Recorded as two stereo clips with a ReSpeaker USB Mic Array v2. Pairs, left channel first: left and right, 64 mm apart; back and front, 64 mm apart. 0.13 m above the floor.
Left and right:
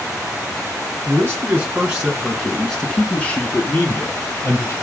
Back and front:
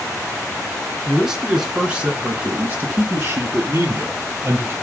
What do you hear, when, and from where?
1.1 s a man speaking: 85° right, 1.2 m; by 4.7 s 50° left, 1.8 m